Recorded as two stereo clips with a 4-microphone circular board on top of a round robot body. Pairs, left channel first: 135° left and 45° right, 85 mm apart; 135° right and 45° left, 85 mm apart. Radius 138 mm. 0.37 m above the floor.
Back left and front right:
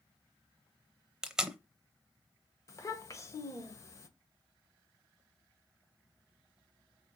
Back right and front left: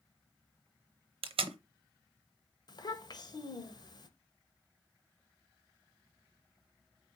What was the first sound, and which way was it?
Tape being pulled, 40° left.